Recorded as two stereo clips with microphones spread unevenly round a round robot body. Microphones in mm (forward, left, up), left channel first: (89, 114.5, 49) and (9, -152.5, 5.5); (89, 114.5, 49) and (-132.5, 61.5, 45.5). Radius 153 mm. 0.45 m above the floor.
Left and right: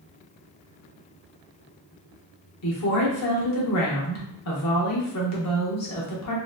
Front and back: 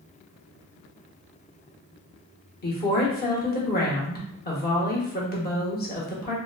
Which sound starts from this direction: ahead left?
A woman speaking, at 2.6 s.